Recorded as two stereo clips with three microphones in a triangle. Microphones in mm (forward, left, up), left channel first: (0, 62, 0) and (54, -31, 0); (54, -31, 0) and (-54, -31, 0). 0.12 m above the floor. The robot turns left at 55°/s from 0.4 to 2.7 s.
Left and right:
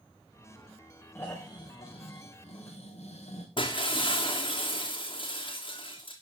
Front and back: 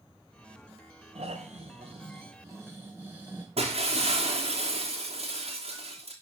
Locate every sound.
1.1 s snoring: 165° right, 3 m; by 3.5 s 110° left, 3 m
3.6 s breaking glass: 160° left, 2.5 m